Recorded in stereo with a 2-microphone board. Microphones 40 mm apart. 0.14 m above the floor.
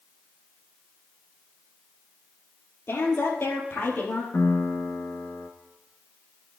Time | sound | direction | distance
2.9 | a woman speaking | 70° left (ahead or behind) | 3 m
4.3 | a piano | 55° left (ahead or behind) | 1.7 m